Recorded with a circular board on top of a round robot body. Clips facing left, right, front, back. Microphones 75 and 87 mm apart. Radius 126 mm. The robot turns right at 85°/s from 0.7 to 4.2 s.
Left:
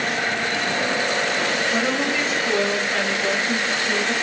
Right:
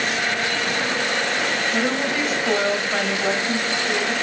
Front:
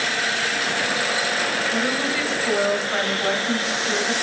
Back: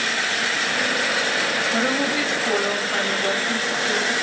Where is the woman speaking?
145° left, 1.6 m; by 4.1 s 5° right, 1.6 m.